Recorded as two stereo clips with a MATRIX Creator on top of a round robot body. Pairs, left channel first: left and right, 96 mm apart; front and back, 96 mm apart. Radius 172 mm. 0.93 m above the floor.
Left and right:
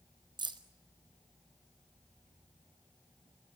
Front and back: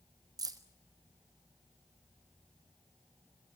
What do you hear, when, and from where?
0.4 s keys jangling: 130° right, 1.5 m